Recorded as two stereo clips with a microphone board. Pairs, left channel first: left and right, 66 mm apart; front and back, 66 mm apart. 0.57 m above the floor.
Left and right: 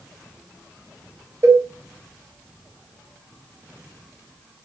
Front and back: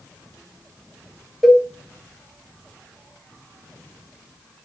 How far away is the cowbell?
About 0.6 m.